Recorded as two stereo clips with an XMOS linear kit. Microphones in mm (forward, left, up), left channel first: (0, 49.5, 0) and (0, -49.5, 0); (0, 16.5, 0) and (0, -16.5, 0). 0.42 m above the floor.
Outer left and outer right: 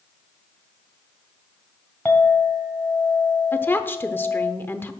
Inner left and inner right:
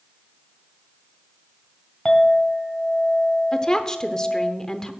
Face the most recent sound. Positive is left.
turn(degrees=20)  # may be behind; listen again after turning